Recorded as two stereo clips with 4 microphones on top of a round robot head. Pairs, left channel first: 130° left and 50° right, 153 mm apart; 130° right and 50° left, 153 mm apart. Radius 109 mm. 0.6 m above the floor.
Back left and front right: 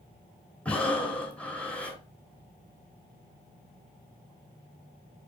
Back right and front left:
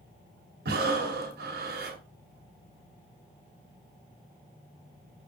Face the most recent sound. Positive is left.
turn(degrees=45)